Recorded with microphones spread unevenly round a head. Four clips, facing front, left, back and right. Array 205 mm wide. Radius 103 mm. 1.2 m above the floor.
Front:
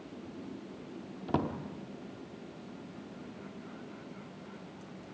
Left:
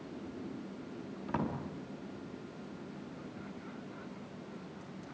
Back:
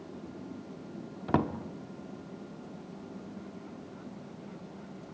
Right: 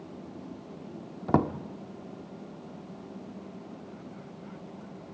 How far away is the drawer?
About 1.2 m.